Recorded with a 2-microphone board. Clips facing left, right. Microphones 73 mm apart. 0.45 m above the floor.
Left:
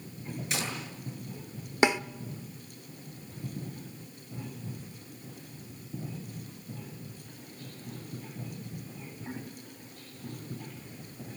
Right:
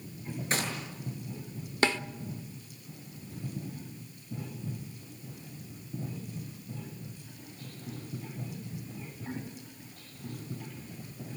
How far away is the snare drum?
About 0.6 m.